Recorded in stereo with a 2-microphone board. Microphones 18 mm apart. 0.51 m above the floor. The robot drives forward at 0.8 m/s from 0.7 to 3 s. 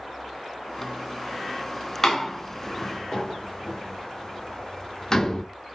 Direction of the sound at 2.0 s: 20° left (ahead or behind).